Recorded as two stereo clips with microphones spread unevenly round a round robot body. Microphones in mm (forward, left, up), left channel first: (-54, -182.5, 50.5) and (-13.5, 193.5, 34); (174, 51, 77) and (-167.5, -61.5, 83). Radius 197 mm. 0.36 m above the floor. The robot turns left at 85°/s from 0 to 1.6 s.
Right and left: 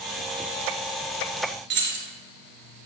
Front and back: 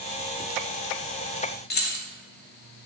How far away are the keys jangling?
About 0.7 m.